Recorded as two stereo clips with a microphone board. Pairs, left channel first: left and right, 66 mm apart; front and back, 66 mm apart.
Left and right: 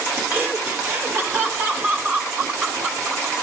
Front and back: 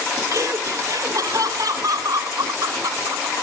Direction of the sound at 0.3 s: 150° right.